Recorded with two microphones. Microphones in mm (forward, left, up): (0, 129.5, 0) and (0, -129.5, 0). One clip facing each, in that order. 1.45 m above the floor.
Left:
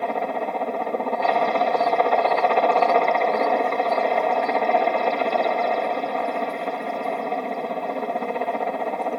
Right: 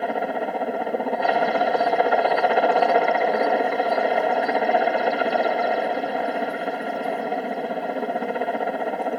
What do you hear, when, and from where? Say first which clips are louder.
0.0 s a helicopter: right 1 dB; 5° right (ahead or behind)